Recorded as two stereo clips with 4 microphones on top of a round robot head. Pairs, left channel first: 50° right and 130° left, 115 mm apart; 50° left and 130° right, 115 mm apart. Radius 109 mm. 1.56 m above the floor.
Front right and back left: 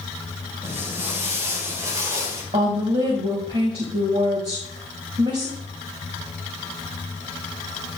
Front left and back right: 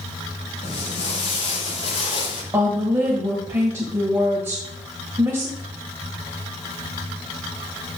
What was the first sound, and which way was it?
Footsteps, 55° left.